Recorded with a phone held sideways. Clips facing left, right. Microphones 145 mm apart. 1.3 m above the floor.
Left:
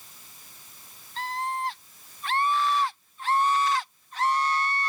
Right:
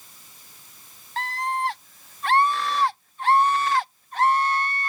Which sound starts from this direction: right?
A scream, at 1.2 s.